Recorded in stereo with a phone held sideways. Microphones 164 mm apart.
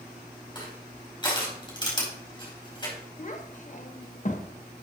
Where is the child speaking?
50° left (ahead or behind), 1.2 m.